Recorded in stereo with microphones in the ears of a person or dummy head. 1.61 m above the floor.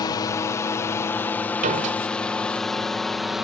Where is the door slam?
40° right (ahead or behind).